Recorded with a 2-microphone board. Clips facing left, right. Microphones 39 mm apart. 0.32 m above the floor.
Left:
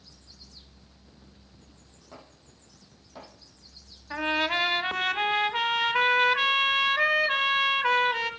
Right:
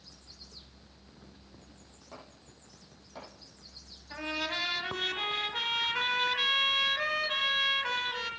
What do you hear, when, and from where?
2.1 s chopping: centre (ahead or behind), 7.5 m
4.1 s a trumpet: 50° left (ahead or behind), 0.9 m